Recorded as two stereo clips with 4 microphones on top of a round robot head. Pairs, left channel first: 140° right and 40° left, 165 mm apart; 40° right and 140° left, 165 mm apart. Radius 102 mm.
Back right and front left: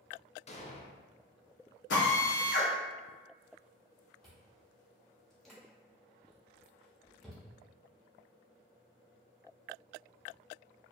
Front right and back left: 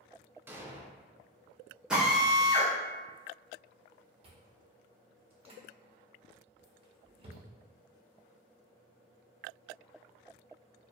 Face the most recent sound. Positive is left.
turn(degrees=135)